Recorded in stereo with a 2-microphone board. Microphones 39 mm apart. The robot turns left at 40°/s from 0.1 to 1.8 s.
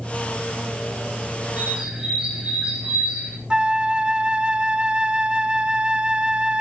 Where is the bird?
35° right (ahead or behind), 3.5 m; by 3.4 s 25° right (ahead or behind), 3.5 m.